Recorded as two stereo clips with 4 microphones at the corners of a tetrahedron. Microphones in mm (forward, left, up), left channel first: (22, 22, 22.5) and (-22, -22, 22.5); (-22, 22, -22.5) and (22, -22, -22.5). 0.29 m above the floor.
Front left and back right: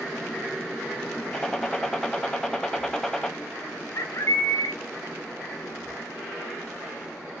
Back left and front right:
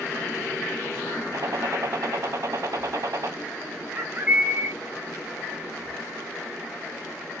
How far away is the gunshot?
About 0.5 m.